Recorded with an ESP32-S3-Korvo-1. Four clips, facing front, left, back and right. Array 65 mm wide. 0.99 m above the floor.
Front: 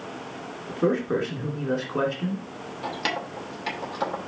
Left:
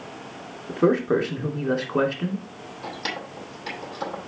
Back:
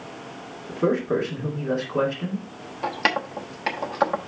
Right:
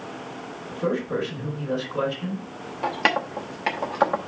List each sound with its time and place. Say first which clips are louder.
0.7 s a man speaking: left 6 dB, back 1 dB; 90° left, 2.5 m
2.8 s keys jangling: right 10 dB, back 6 dB; 120° right, 0.9 m